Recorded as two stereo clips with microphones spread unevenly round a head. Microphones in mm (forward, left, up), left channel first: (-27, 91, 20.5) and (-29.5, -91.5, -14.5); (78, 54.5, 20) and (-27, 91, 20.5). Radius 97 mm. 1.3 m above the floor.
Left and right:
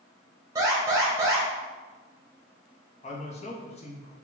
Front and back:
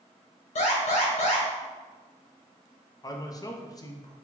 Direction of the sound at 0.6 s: 20° right.